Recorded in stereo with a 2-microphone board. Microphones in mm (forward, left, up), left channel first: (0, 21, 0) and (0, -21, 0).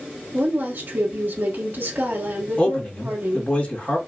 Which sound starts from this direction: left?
A man speaking, at 2.6 s.